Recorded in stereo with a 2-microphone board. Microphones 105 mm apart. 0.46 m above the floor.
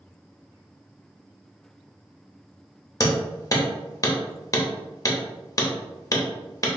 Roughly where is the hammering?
Left.